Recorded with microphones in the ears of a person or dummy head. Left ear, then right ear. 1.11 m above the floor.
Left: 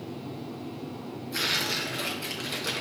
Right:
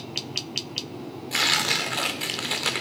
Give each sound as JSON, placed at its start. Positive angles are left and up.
{"t": 1.3, "sound": "tearing paper", "side_deg": -30, "distance_m": 0.8}